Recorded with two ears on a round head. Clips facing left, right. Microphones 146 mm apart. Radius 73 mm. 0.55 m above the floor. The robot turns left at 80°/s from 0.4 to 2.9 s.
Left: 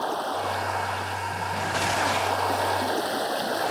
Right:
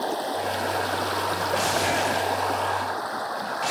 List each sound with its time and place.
0.0 s running water: 15° right; by 3.7 s 145° left